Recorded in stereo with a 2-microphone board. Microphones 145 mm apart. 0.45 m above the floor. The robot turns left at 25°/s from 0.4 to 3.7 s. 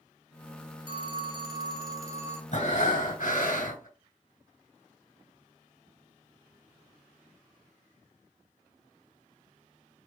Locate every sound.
0.9 s a phone ringing: 110° right, 0.8 m; by 2.4 s 150° right, 0.8 m
2.5 s breathing: 60° left (ahead or behind), 2.5 m; by 3.9 s 65° left (ahead or behind), 2.5 m